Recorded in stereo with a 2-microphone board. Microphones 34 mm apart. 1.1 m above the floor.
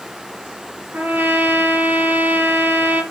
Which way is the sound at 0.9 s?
75° right (ahead or behind).